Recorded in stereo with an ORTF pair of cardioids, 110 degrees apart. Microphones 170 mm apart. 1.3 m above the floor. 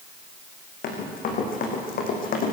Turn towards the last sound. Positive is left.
turn(degrees=60)